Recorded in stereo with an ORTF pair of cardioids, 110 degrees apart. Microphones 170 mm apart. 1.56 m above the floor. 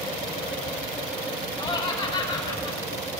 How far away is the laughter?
About 3.5 m.